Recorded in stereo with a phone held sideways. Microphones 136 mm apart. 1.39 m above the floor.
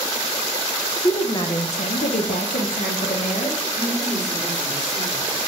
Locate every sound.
1.0 s a woman speaking: 25° left (ahead or behind), 0.9 m; by 3.6 s 70° left (ahead or behind), 1.5 m
3.7 s a woman speaking: 20° right (ahead or behind), 2.5 m